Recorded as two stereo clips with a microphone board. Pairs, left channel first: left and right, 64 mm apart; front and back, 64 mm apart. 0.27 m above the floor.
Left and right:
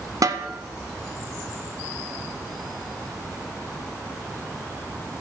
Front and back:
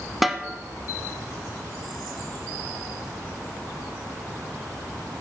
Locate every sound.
0.2 s a snare drum: 95° right, 0.8 m